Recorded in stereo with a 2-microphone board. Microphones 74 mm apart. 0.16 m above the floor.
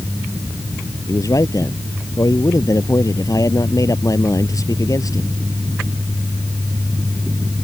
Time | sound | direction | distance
1.1 | a man speaking | 60° left (ahead or behind) | ?